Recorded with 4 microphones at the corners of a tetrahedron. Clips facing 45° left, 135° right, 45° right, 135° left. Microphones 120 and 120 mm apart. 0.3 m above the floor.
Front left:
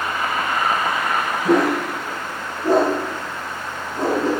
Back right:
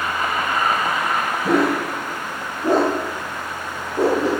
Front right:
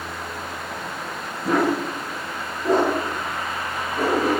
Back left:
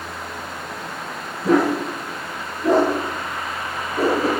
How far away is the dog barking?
About 3.5 m.